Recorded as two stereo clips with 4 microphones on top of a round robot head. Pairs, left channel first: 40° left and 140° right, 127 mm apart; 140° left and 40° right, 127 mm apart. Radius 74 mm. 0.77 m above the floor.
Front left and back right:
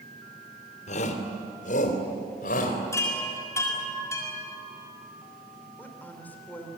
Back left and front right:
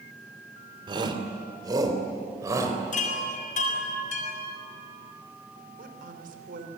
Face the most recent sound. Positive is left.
turn(degrees=-35)